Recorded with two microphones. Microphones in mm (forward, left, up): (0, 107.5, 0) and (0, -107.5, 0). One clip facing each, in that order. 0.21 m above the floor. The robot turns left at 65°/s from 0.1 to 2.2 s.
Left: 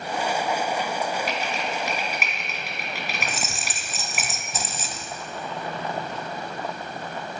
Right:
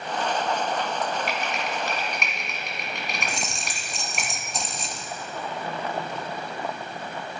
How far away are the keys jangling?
About 0.7 m.